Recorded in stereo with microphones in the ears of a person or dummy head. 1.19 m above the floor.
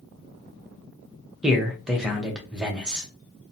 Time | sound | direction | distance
1.4 | a man speaking | 5° right (ahead or behind) | 0.6 m